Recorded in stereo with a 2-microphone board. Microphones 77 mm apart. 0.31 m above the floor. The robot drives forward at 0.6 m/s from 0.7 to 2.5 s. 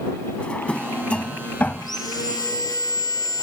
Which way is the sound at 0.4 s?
15° left (ahead or behind).